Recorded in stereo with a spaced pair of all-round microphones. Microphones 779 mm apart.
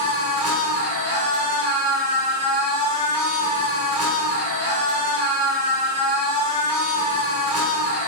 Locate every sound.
0.0 s a machine running: 25° right (ahead or behind), 1.4 m